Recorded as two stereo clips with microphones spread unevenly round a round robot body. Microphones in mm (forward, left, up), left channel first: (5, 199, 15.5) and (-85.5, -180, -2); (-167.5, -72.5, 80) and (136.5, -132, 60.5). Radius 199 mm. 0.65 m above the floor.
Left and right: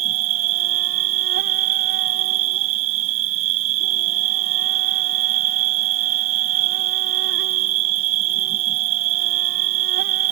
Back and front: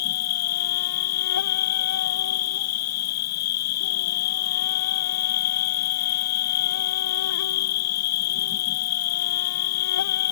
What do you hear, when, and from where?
0.0 s an insect: 160° right